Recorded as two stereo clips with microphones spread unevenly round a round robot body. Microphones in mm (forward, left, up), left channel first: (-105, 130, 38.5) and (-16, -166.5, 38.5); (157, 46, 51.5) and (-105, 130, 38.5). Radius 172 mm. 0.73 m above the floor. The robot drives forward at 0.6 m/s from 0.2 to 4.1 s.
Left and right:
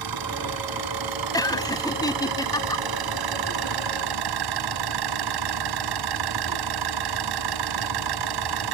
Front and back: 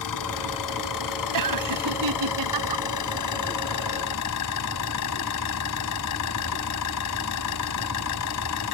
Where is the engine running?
45° right; by 8.7 s 60° right.